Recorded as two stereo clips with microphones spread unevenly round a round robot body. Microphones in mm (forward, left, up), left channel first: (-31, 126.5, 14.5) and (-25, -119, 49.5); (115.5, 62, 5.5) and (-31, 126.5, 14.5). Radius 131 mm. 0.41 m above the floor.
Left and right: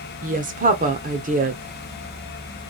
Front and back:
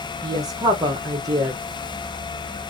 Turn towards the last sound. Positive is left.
turn(degrees=-140)